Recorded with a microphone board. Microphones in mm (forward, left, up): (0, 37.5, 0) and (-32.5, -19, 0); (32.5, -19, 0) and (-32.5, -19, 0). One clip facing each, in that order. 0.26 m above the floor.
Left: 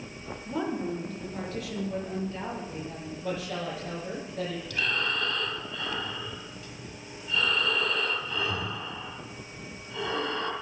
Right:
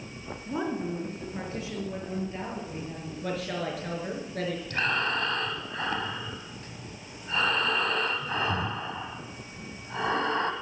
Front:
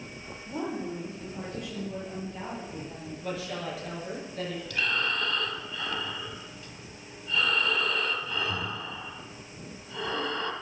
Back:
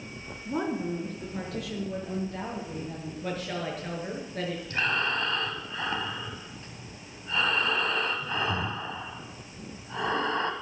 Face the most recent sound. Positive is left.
turn(degrees=-140)